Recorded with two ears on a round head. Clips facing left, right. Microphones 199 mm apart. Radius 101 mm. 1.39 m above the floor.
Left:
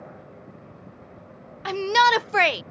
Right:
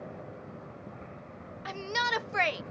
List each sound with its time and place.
1.6 s a shout: 60° left (ahead or behind)